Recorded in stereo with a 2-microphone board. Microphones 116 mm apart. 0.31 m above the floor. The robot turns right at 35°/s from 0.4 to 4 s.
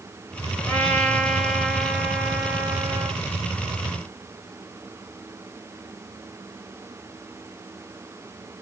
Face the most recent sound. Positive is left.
turn(degrees=-90)